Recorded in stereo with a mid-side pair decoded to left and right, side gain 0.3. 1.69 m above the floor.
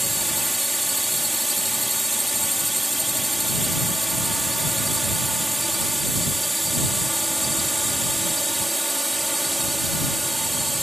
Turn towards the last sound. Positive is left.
turn(degrees=-10)